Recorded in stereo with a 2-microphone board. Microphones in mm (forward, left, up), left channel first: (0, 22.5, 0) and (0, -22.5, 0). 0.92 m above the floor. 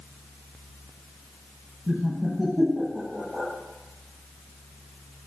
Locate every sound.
1.9 s laughter: 15° right (ahead or behind), 0.7 m